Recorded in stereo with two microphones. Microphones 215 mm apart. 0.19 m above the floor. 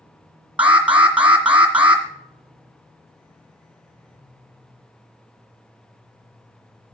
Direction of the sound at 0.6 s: 5° right (ahead or behind).